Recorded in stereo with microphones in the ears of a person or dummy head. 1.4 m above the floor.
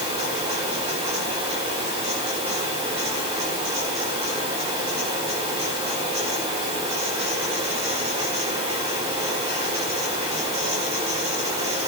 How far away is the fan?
About 6 m.